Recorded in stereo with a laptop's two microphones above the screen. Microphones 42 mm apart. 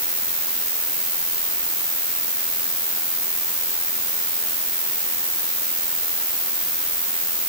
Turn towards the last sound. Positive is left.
turn(degrees=70)  # may be behind; listen again after turning